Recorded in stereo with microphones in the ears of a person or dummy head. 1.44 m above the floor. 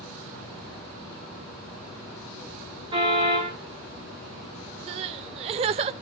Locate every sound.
2.9 s a car horn: 40° right (ahead or behind), 9 m
4.9 s crying: 30° right (ahead or behind), 0.7 m